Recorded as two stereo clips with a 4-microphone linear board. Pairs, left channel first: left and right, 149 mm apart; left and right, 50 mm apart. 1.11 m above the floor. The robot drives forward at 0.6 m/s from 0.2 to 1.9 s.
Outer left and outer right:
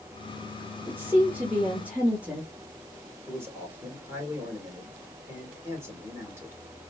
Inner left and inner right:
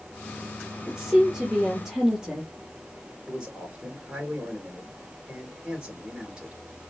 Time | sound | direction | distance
0.9 | a woman speaking | 15° right (ahead or behind) | 1.8 m
3.3 | a man speaking | 15° right (ahead or behind) | 3.5 m